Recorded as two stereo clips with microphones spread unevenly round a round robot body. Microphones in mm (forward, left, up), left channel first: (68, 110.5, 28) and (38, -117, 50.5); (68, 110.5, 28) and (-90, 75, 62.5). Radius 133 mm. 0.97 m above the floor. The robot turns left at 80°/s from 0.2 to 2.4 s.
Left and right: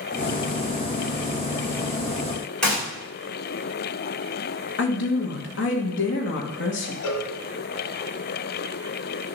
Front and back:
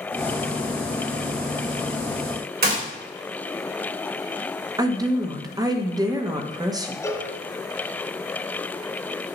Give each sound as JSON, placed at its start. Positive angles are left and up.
{"t": 2.6, "sound": "a gunshot", "azimuth_deg": 170, "distance_m": 3.0}
{"t": 4.8, "sound": "a woman speaking", "azimuth_deg": 120, "distance_m": 1.3}
{"t": 7.0, "sound": "a cowbell", "azimuth_deg": 90, "distance_m": 1.7}